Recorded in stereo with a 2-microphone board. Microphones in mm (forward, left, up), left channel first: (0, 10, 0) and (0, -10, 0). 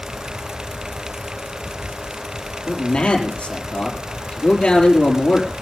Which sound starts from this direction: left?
A man speaking, at 2.7 s.